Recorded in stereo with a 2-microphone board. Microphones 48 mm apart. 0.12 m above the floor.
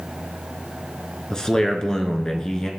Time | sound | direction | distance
1.3 | a man speaking | 15° left (ahead or behind) | 1.3 m